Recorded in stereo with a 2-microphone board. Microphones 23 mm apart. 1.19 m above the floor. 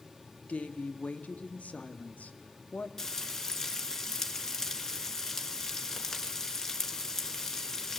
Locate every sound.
0.5 s a woman speaking: 75° left (ahead or behind), 1.7 m
3.0 s frying: 25° left (ahead or behind), 3 m